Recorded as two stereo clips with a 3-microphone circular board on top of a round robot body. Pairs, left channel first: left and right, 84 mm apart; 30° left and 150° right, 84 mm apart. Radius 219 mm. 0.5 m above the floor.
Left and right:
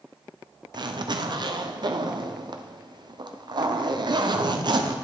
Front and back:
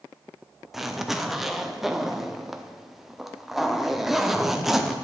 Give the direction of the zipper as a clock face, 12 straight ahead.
2 o'clock.